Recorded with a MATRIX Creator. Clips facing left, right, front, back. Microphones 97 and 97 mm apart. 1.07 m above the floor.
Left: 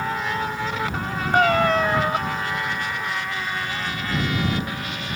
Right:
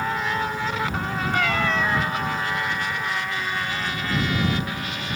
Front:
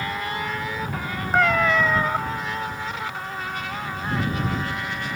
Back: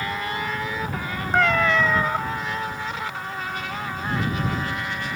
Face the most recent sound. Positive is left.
turn(degrees=85)